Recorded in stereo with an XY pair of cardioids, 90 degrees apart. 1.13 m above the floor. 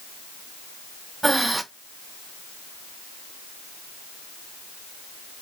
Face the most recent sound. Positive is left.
turn(degrees=-15)